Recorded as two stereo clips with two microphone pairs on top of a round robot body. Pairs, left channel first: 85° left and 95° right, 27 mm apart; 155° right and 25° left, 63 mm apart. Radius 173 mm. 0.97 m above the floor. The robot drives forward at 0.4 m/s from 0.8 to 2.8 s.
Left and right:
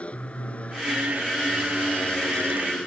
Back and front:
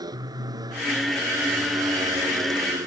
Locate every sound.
0.0 s a motorcycle: 40° left; by 2.9 s 45° left